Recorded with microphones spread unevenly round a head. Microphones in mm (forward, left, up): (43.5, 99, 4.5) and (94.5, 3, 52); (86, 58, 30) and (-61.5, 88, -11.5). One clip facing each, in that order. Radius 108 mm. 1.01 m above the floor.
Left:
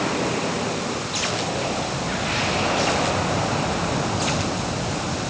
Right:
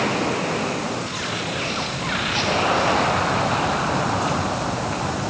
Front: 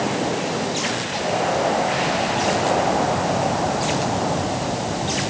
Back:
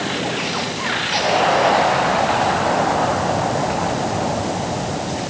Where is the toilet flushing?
No toilet flushing in this recording.